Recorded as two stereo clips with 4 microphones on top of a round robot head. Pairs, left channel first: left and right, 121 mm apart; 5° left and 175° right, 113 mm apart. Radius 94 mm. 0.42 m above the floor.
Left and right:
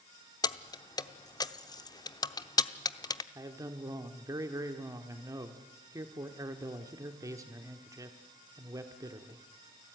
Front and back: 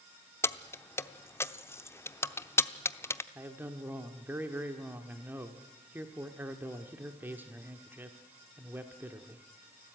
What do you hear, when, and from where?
0.4 s keys jangling: 60° left, 0.8 m
3.4 s a man speaking: 120° right, 1.2 m